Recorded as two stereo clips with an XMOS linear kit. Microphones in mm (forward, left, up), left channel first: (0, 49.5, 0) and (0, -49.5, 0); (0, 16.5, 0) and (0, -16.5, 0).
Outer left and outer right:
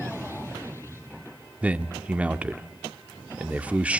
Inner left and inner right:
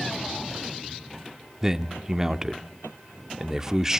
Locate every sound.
1.6 s a man speaking: 15° right (ahead or behind), 0.8 m